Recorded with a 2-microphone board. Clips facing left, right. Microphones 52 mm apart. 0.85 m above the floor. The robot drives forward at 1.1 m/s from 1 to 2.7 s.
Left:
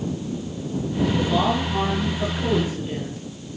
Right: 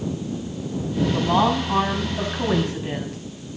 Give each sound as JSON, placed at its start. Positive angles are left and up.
{"t": 1.1, "sound": "a woman speaking", "side_deg": -70, "distance_m": 6.5}